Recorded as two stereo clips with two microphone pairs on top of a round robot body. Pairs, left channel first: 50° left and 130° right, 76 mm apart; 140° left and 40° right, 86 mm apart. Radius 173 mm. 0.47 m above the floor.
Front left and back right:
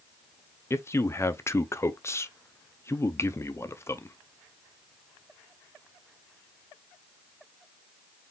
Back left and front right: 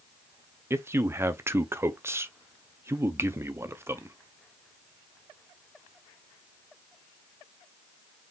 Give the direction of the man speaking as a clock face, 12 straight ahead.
12 o'clock.